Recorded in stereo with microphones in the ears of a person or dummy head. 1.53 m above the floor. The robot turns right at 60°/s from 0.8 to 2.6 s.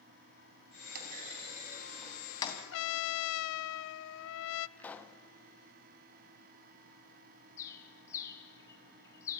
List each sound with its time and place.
0.9 s a clunk: 50° right (ahead or behind), 2.5 m; by 2.6 s 30° left (ahead or behind), 2.5 m
2.7 s a trumpet: 70° left (ahead or behind), 0.5 m
4.8 s a pop: 10° left (ahead or behind), 1.1 m
7.6 s a bird: 20° left (ahead or behind), 1.8 m